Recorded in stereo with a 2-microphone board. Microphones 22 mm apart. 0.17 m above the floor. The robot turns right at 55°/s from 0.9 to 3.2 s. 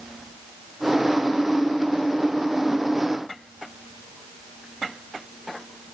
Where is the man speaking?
I don't hear a man speaking.